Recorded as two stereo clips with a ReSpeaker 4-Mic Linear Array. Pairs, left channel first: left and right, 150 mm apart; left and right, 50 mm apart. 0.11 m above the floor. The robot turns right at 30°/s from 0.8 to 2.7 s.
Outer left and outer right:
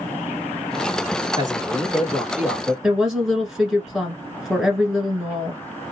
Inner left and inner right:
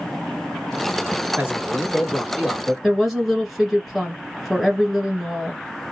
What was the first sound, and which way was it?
A man speaking, 55° right.